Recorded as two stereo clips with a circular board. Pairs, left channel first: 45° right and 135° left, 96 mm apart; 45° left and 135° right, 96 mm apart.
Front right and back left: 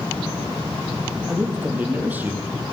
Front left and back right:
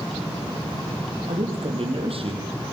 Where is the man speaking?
155° right, 4.5 m.